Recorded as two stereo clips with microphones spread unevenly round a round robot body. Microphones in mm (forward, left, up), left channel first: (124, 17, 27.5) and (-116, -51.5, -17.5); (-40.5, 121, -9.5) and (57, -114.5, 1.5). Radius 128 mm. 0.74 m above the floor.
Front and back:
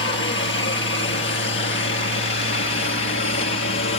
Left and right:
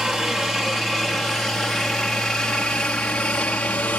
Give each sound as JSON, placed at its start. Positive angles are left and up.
{"t": 0.0, "sound": "a helicopter", "azimuth_deg": 20}